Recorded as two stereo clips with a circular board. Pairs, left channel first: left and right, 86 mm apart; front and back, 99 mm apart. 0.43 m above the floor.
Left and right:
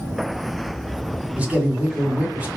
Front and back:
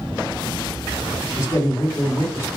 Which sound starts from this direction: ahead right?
A man speaking, at 1.4 s.